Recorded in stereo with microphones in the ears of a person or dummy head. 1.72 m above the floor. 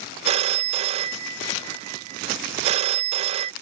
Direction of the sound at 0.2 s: 35° right (ahead or behind).